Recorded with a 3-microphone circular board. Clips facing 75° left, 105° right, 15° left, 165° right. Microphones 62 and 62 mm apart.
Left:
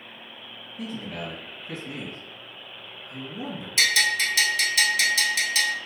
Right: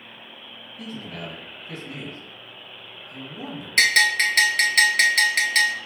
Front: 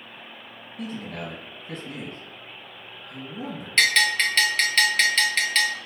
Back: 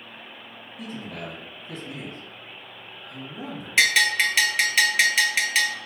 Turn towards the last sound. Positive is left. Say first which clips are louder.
# right 5 dB, back 1 dB
turn(degrees=-85)